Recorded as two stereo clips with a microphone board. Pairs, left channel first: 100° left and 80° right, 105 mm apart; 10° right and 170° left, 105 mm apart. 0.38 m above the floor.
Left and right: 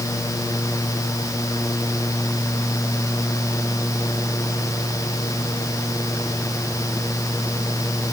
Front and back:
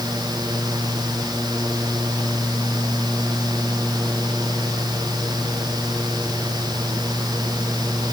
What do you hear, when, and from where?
Only background noise.